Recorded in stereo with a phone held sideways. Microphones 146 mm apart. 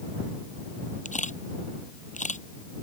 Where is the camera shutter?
55° left (ahead or behind).